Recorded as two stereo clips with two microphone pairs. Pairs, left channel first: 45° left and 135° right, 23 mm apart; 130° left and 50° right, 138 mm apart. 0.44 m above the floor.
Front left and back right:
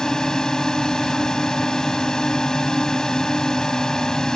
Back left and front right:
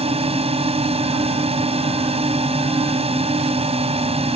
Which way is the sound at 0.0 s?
15° right.